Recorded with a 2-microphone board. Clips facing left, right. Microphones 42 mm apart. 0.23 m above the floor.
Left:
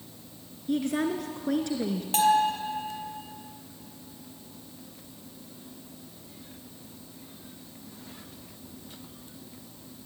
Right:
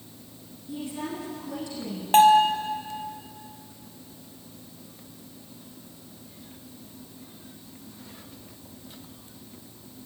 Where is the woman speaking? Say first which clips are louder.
Left 7 dB; 65° left (ahead or behind), 2.5 m.